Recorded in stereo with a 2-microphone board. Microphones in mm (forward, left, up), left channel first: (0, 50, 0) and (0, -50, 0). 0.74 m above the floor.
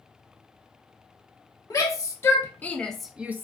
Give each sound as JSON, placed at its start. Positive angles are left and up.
{"t": 1.7, "sound": "a shout", "side_deg": 35, "distance_m": 1.0}